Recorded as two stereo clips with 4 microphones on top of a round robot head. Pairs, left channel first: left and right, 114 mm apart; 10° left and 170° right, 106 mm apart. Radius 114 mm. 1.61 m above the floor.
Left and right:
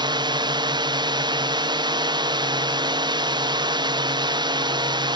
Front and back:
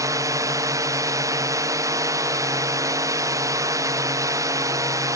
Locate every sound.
0.0 s a drone: 120° right